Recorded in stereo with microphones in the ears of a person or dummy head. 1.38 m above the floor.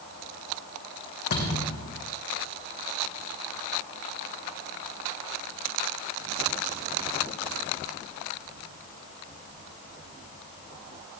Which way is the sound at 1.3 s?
55° left (ahead or behind).